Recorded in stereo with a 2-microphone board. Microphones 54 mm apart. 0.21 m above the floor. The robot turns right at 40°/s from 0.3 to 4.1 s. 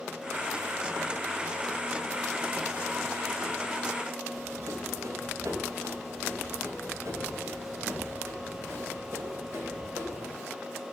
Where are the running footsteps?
70° right (ahead or behind), 4 m; by 10.3 s 50° right (ahead or behind), 6.5 m.